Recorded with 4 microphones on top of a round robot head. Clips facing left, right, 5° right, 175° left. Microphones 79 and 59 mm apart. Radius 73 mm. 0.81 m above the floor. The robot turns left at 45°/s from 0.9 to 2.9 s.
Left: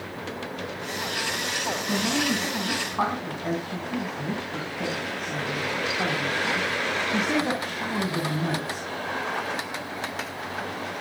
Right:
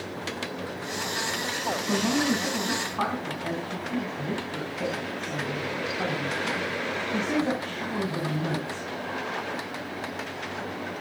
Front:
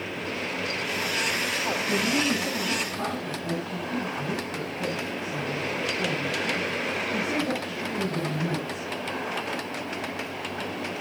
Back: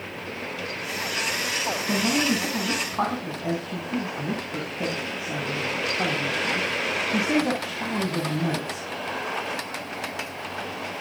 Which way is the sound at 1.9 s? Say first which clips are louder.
Right 1 dB, back 3 dB; 145° right.